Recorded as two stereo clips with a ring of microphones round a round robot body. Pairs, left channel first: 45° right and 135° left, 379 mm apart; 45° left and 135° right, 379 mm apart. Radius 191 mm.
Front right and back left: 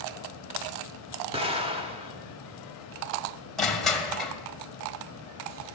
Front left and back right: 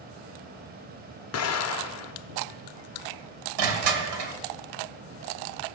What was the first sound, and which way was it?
An explosion, 65° left.